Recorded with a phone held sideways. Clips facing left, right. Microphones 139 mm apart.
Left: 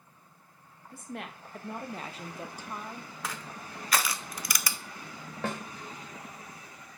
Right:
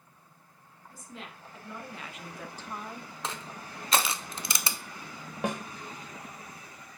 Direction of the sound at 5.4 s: 15° right (ahead or behind).